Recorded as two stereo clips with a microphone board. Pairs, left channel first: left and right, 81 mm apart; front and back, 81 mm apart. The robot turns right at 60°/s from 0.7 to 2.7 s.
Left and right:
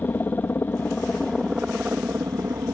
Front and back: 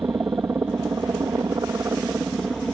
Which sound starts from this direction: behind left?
A helicopter, at 0.0 s.